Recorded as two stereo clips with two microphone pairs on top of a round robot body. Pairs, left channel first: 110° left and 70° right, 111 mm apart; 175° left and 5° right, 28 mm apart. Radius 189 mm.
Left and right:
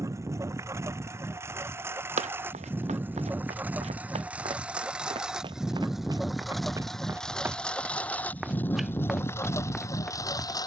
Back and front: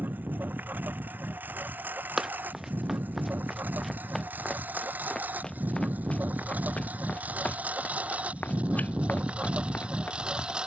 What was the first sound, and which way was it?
A lawn mower, 5° right.